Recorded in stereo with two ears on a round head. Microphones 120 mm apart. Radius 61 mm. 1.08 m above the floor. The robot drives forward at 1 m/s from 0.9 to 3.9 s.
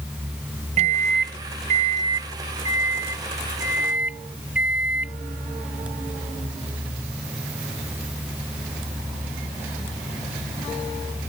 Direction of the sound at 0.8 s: 50° right (ahead or behind).